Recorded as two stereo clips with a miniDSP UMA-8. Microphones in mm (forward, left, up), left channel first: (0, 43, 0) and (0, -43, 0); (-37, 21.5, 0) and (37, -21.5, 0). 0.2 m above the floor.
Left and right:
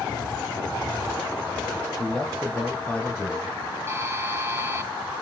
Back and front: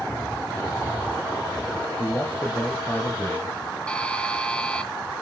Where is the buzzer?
140° right, 1.8 m.